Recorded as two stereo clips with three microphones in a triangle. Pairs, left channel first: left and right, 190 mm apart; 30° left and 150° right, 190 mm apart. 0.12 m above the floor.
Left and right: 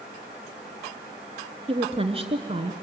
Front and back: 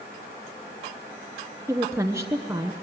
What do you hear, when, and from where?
1.7 s a woman speaking: 90° right, 1.2 m